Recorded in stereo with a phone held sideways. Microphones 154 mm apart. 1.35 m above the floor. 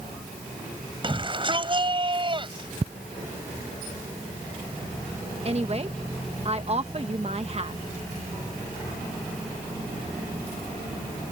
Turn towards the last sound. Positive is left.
turn(degrees=-40)  # may be behind; listen again after turning